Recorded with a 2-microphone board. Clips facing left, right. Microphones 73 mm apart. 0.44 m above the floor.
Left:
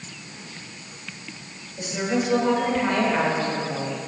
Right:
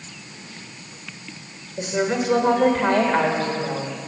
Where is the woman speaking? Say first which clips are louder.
Right 3 dB; 50° right (ahead or behind), 1.1 m.